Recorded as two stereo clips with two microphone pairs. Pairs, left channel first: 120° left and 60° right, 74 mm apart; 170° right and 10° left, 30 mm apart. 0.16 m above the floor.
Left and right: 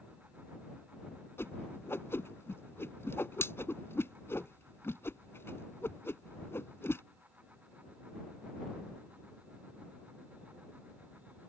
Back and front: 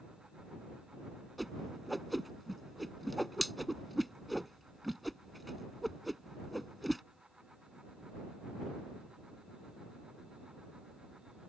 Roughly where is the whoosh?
Left.